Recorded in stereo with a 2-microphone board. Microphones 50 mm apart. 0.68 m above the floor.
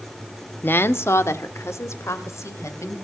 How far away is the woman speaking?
About 0.9 m.